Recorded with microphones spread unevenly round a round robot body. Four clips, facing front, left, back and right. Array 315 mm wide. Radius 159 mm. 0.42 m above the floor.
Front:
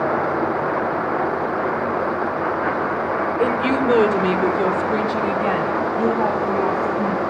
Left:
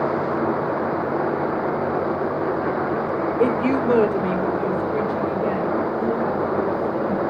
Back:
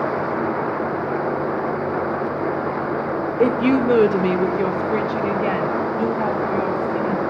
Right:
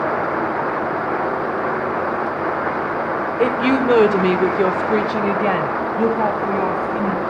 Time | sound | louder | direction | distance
3.4 | a woman speaking | right 3 dB, back 4 dB | 165° left | 1.3 m